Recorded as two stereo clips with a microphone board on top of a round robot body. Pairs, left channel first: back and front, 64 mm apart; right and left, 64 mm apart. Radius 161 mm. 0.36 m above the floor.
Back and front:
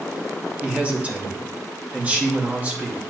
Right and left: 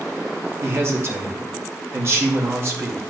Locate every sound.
0.6 s a man speaking: 60° left, 2 m